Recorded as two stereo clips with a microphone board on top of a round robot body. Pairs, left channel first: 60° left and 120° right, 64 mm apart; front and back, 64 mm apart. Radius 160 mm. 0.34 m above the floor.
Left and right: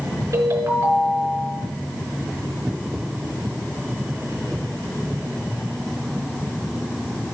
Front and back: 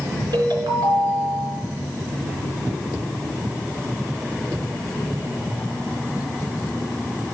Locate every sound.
0.3 s a ringtone: 165° right, 5 m